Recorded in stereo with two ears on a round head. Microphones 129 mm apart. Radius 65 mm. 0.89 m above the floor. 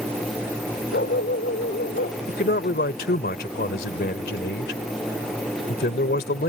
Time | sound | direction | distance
0.9 | a dog barking | 65° left (ahead or behind) | ?
2.3 | a man speaking | 70° left (ahead or behind) | ?